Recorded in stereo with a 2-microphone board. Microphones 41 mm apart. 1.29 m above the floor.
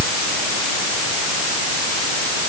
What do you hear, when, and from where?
Only background noise.